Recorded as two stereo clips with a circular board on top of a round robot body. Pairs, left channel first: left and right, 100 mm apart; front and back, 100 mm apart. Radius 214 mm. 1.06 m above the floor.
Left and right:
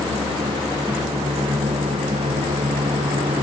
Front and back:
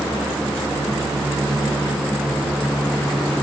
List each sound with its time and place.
Only background noise.